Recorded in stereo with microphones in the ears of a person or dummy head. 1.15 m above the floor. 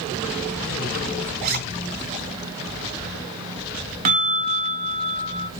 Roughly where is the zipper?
Right.